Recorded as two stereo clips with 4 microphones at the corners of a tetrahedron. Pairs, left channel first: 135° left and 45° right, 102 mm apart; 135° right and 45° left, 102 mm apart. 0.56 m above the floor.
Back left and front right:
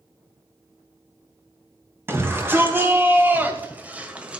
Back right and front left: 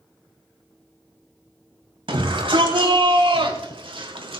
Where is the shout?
20° left, 3.5 m; by 4.4 s 35° left, 2 m.